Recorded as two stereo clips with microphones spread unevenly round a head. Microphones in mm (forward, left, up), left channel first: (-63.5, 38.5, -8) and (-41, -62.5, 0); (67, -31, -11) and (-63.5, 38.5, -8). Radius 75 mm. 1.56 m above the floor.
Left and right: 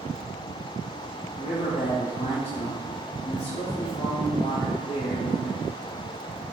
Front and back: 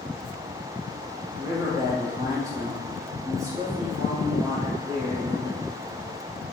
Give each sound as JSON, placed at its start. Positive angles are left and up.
{"t": 1.4, "sound": "a man speaking", "azimuth_deg": 85, "distance_m": 0.7}